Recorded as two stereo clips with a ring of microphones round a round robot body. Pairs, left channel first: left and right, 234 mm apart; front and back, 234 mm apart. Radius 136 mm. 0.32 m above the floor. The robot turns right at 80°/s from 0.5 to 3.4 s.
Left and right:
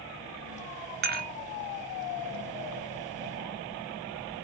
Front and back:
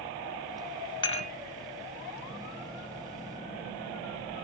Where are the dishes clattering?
65° right, 0.7 m; by 1.3 s 40° right, 0.7 m.